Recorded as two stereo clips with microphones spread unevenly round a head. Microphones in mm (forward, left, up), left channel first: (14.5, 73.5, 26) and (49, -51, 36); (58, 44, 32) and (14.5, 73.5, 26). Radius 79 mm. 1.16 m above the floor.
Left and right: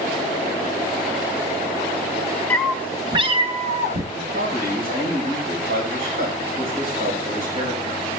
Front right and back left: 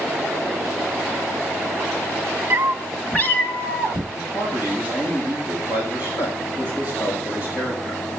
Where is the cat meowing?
175° right, 0.5 m; by 4.0 s 45° right, 0.9 m.